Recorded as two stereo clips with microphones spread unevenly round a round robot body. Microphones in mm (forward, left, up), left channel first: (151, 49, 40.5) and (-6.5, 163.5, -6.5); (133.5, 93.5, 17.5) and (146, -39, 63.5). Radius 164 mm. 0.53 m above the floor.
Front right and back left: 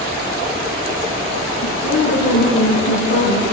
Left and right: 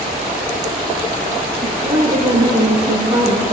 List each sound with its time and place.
1.6 s a woman speaking: 30° right, 7 m; by 3.4 s 20° right, 6 m